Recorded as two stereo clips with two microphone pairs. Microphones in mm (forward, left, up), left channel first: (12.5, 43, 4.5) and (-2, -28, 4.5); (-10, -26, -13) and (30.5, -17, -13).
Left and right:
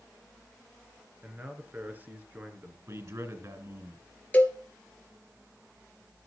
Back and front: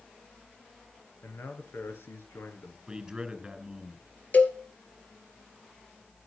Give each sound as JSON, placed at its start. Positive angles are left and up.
{"t": 1.2, "sound": "a man speaking", "azimuth_deg": -165, "distance_m": 5.0}
{"t": 2.9, "sound": "a man speaking", "azimuth_deg": -60, "distance_m": 4.0}
{"t": 4.3, "sound": "a cowbell", "azimuth_deg": 145, "distance_m": 3.0}